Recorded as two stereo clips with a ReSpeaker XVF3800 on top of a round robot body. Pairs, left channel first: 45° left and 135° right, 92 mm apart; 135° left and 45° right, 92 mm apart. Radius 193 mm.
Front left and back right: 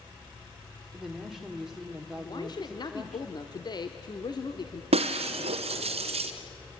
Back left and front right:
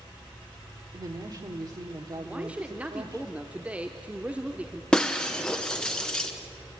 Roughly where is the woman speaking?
Ahead right.